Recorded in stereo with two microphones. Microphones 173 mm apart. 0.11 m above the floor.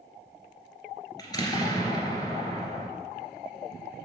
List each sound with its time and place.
1.2 s an explosion: 20° left (ahead or behind), 1.7 m